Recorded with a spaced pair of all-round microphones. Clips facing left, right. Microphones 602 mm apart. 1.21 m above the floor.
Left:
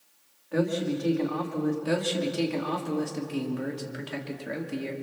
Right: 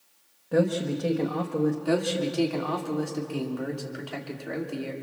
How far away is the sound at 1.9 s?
About 3 m.